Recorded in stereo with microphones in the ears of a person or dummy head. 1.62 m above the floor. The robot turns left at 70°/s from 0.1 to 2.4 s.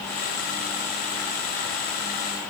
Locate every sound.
Only background noise.